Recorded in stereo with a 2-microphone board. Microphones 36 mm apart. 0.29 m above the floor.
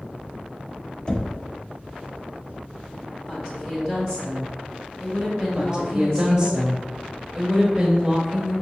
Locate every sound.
1.1 s knocking: 20° left (ahead or behind), 0.6 m
3.3 s a woman speaking: 20° left (ahead or behind), 2.0 m
5.5 s a woman speaking: 25° right (ahead or behind), 1.1 m